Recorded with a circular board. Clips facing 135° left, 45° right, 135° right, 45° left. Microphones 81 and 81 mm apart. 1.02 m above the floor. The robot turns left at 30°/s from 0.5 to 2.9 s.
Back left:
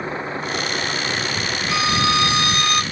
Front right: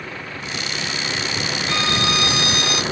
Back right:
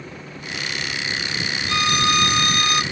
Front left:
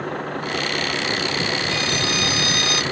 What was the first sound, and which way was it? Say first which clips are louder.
A vehicle: back left 6 dB, front left 10 dB; 75° left.